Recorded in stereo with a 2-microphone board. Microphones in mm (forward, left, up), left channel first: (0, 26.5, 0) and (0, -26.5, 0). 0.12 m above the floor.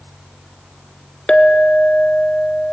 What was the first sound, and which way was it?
A clink, 20° left (ahead or behind).